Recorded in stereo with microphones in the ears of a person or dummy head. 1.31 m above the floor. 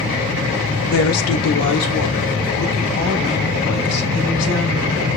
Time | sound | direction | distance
0.9 | a woman speaking | 55° left (ahead or behind) | 0.5 m